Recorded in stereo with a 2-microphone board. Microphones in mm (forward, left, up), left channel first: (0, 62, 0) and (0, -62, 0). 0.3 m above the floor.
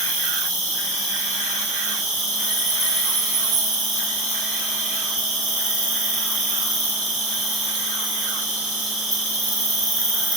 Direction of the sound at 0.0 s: 75° left (ahead or behind).